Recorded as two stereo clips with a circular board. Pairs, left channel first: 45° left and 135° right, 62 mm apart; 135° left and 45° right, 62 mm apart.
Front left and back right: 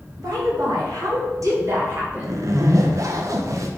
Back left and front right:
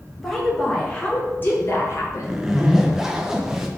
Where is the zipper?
125° right, 0.7 m.